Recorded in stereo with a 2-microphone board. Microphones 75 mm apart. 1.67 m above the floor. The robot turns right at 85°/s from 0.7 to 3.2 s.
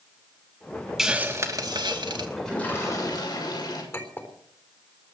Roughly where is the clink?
Left.